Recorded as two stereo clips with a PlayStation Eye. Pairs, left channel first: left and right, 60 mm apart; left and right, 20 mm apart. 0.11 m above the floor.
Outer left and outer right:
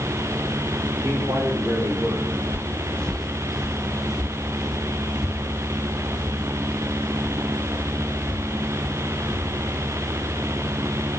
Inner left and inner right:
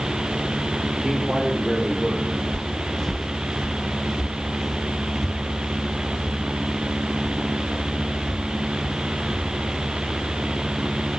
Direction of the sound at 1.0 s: 70° right (ahead or behind).